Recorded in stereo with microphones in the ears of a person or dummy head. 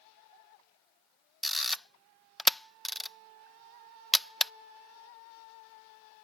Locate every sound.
1.4 s a camera shutter: centre (ahead or behind)